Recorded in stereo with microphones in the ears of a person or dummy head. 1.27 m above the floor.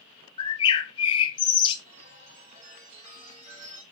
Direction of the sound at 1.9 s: 40° right (ahead or behind).